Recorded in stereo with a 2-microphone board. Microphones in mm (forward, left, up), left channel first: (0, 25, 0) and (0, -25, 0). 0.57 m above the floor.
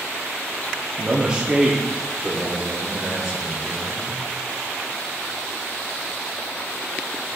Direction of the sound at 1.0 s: 25° right (ahead or behind).